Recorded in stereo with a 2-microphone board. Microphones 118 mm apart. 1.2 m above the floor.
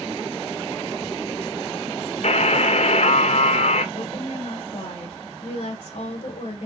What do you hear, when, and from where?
2.2 s a buzzer: 65° left (ahead or behind), 0.7 m
4.0 s a woman speaking: 55° left (ahead or behind), 1.4 m